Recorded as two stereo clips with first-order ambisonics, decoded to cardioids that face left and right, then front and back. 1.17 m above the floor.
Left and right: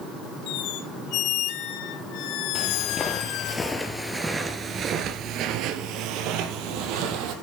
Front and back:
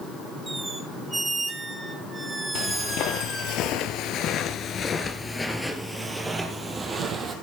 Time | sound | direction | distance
0.5 | a squeak | 100° left | 1.4 m
2.5 | footsteps | 30° left | 2.5 m